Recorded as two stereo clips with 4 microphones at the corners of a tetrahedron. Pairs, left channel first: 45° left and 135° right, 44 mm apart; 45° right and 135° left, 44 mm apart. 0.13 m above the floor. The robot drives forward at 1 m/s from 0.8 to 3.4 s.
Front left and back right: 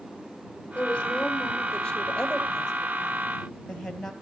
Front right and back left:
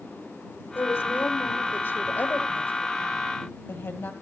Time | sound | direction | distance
0.8 | a woman speaking | 20° right | 5.5 m